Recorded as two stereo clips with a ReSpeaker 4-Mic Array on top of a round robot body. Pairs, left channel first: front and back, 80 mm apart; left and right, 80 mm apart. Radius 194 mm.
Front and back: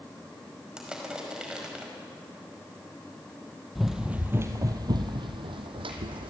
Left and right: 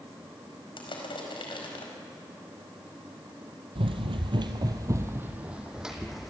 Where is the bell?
I don't hear a bell.